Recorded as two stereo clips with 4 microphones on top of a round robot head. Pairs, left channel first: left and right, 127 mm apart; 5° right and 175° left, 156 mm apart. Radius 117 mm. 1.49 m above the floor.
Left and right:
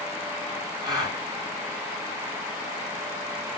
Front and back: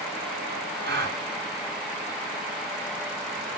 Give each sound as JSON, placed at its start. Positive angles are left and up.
{"t": 0.8, "sound": "a gasp", "azimuth_deg": -145, "distance_m": 4.0}